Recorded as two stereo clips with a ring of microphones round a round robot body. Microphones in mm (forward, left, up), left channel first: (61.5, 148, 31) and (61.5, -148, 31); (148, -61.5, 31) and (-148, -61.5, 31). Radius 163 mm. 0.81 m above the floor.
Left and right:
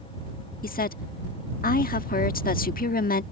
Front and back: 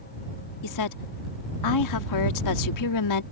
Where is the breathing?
I don't hear breathing.